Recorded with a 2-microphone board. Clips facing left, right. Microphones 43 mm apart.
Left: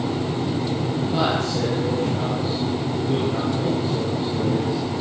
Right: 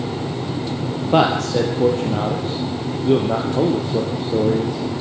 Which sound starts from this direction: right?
A man speaking, at 1.1 s.